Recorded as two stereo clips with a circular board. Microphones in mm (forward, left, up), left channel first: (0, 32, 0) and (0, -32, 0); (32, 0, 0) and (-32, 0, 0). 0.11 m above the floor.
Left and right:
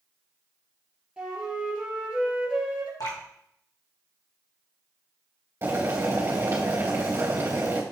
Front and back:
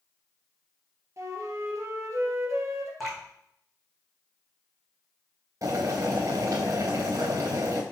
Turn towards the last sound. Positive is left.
turn(degrees=-145)